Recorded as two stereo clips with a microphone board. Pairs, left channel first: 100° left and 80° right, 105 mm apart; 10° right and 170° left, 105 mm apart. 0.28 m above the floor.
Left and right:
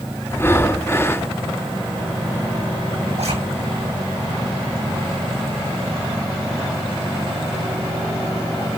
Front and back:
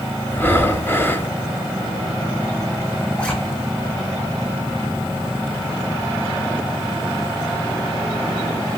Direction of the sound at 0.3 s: 45° left.